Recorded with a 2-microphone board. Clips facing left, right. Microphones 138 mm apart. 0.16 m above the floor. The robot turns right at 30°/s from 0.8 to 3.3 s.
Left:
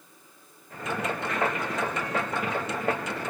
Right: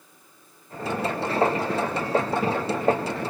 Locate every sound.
Only background noise.